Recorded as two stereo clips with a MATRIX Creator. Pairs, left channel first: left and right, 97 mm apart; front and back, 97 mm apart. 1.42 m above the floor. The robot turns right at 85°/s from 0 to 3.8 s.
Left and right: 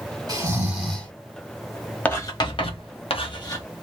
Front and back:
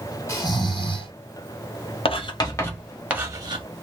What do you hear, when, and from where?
0.3 s snoring: 50° right, 1.7 m; by 1.1 s 20° left, 1.7 m
2.0 s writing: 15° left, 0.9 m; by 3.6 s 150° left, 0.9 m